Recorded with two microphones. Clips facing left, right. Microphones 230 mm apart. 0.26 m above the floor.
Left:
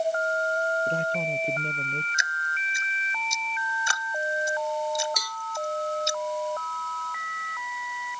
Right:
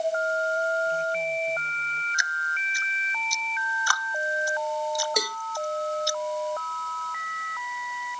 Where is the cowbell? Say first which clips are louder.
Right 12 dB; 70° right (ahead or behind).